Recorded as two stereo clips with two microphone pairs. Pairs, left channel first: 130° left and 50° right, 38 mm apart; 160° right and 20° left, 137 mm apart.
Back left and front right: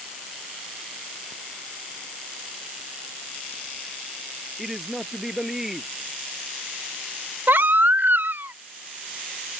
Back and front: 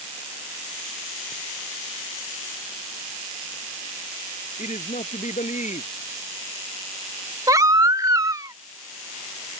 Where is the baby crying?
45° right.